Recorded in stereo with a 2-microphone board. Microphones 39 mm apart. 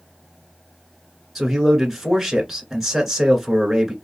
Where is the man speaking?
Centre (ahead or behind), 1.6 m.